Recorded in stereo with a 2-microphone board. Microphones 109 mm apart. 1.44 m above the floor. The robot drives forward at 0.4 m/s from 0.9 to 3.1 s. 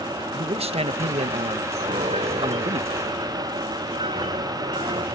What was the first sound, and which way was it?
A man speaking, 65° right (ahead or behind).